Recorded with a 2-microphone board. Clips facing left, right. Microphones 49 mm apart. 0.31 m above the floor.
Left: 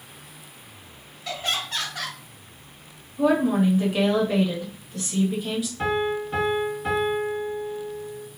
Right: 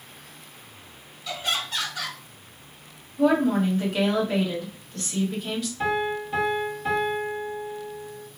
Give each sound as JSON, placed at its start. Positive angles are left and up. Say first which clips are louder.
{"t": 1.2, "sound": "laughter", "louder": "even", "side_deg": 40, "distance_m": 1.9}
{"t": 3.2, "sound": "a woman speaking", "louder": "even", "side_deg": 10, "distance_m": 1.3}
{"t": 5.8, "sound": "a piano", "louder": "left 1 dB", "side_deg": 45, "distance_m": 2.0}